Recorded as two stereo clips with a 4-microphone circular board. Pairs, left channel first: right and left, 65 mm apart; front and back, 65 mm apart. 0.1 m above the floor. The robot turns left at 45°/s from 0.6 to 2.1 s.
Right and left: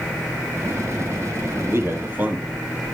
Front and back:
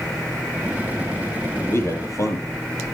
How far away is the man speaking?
About 3 m.